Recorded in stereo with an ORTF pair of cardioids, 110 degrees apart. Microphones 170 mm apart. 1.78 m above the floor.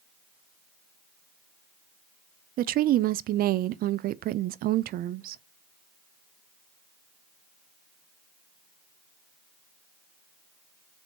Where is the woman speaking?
60° right, 0.6 m.